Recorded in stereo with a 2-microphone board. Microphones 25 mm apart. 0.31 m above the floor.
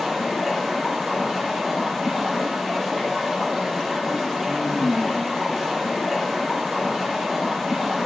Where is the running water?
Centre (ahead or behind), 8 m.